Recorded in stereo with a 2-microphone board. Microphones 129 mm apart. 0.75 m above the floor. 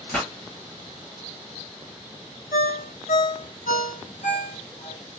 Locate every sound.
0.1 s a pop: 5° left (ahead or behind), 1.6 m
2.5 s a ringtone: 90° left, 0.7 m